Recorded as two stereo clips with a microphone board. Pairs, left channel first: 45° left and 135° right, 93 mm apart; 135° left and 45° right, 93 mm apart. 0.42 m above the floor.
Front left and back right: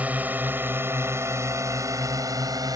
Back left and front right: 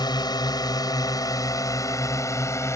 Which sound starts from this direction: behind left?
A drone, at 0.0 s.